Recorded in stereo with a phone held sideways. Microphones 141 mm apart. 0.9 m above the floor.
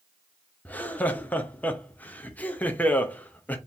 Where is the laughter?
10° left (ahead or behind), 0.6 m.